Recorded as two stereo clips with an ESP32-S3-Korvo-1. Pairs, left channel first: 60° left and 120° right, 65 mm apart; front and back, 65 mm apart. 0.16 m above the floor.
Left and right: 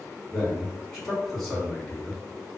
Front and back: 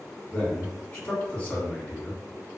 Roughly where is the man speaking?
Ahead right.